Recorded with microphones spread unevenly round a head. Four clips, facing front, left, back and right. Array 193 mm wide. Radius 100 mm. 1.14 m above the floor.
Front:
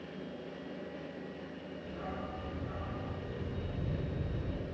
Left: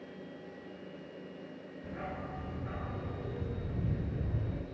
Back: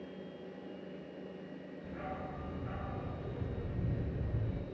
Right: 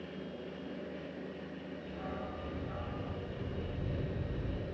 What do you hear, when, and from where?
1.8 s a dog barking: 90° left, 8.5 m; by 4.6 s 100° left, 7.5 m